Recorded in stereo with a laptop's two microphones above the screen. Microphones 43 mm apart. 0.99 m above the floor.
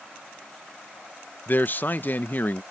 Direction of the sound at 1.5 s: 45° left (ahead or behind).